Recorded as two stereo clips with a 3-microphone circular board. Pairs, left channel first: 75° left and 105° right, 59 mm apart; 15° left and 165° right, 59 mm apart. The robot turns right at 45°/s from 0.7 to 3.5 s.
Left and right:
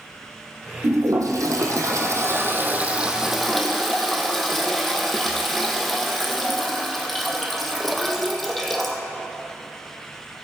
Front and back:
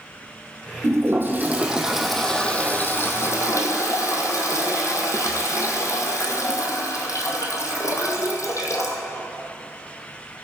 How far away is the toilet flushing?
About 1.4 m.